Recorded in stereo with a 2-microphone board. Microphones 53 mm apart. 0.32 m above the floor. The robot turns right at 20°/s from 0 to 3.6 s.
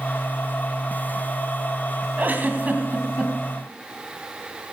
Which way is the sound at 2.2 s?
35° right (ahead or behind).